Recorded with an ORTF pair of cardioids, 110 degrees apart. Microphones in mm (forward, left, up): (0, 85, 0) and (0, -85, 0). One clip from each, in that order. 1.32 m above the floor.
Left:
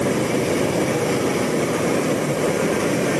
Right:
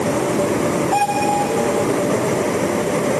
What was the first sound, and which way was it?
Only background noise.